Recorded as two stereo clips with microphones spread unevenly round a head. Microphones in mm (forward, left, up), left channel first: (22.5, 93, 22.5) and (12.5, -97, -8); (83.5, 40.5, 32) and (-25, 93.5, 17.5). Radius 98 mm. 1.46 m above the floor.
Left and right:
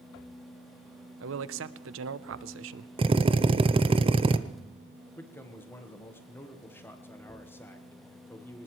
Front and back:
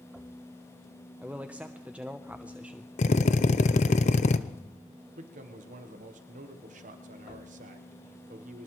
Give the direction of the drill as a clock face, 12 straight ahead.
1 o'clock.